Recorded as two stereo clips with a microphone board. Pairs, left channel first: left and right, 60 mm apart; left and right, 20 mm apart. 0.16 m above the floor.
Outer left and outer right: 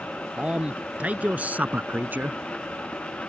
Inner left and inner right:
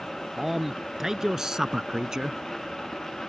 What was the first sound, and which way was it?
A man speaking, 20° right (ahead or behind).